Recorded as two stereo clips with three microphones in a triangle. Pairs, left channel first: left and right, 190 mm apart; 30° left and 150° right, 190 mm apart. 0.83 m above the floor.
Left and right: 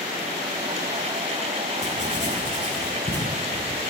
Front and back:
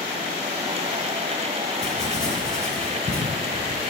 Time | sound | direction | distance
1.8 | writing | 140° left | 2.5 m